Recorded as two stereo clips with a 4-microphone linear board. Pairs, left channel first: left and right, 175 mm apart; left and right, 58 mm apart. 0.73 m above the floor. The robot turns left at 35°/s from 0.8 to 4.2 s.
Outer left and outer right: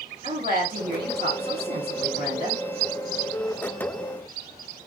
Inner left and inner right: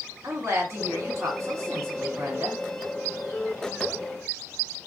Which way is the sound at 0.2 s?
65° right.